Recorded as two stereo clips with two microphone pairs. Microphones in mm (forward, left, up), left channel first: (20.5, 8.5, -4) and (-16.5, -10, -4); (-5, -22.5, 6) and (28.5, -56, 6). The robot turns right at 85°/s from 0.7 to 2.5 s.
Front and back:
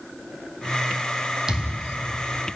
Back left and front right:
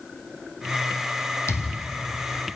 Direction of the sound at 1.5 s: 135° left.